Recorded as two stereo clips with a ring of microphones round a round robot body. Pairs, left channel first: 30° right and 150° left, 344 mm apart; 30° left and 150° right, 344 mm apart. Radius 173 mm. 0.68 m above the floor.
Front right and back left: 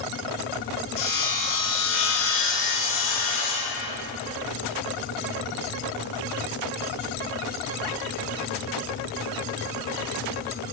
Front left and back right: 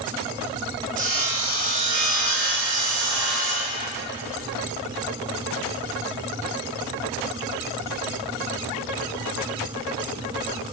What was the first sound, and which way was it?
Sawing, 85° right.